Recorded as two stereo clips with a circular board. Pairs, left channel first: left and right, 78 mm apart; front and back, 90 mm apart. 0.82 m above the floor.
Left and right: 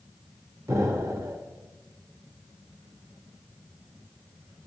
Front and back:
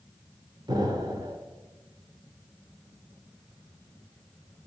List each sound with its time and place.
0.7 s an explosion: 140° right, 1.0 m